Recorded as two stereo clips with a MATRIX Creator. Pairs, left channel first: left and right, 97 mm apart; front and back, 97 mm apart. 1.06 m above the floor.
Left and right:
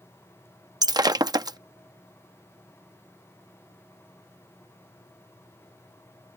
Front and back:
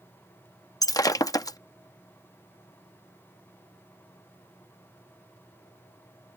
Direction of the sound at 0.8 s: 45° right.